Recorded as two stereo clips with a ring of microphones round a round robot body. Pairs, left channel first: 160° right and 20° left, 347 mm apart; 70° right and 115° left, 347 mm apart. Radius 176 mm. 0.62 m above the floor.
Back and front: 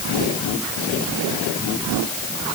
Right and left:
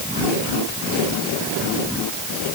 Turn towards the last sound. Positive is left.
No sound to turn to.